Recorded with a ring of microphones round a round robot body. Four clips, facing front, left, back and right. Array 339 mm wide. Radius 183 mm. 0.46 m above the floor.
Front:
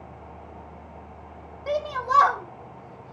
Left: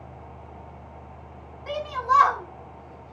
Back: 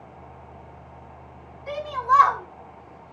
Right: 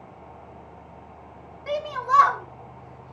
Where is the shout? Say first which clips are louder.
Even, back 3 dB; 15° right, 3 m; by 3.1 s 20° right, 5 m.